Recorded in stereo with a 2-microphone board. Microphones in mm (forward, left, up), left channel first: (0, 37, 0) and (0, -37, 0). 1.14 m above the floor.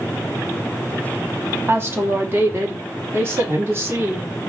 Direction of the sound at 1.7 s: 30° right (ahead or behind).